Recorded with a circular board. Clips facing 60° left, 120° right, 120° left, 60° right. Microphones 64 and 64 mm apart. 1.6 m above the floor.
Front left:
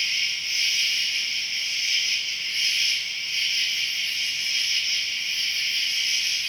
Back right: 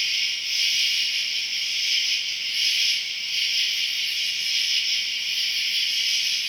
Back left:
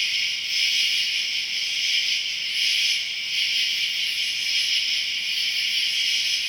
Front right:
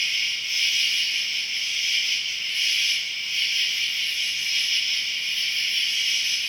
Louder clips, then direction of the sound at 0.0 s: Even, even; 15° left.